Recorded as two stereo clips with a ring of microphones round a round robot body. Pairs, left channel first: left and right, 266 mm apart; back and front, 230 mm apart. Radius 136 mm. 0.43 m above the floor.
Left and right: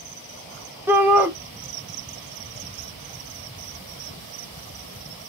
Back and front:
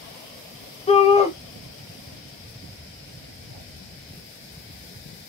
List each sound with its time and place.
0.9 s a shout: 165° right, 1.0 m